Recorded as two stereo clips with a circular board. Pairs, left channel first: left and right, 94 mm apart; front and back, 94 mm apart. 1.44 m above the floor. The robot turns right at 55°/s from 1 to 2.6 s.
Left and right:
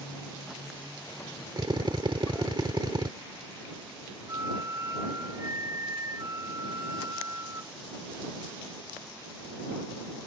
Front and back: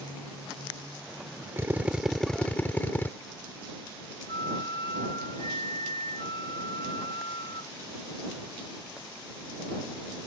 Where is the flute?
30° right.